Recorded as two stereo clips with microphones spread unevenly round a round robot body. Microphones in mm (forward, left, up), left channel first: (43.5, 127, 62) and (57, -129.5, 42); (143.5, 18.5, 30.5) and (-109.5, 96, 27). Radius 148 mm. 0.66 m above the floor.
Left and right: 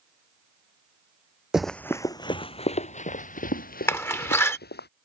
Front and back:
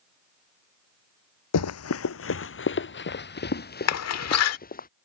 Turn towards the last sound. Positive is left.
turn(degrees=10)